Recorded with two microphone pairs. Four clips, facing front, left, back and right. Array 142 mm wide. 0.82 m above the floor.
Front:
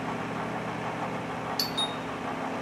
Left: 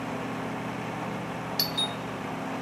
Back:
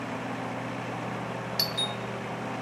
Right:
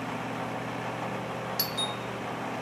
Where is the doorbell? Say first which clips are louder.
Left 1 dB, front 1 dB; 130° left, 0.8 m.